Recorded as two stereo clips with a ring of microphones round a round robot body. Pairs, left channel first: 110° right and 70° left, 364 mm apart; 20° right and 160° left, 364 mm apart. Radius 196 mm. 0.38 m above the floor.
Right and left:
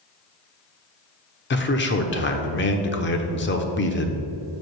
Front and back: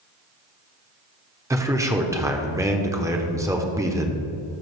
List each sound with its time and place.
1.5 s a man speaking: 130° right, 0.9 m